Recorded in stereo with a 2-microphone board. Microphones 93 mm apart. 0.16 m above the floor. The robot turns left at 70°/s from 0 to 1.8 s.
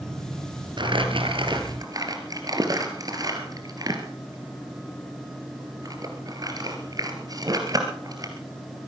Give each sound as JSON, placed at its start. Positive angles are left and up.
{"t": 0.8, "sound": "crumpling", "side_deg": -55, "distance_m": 2.5}